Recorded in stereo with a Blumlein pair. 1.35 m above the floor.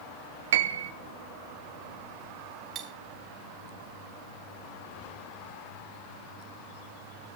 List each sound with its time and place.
0.5 s a piano: 55° right, 1.2 m
2.8 s cutlery clinking: 25° right, 2 m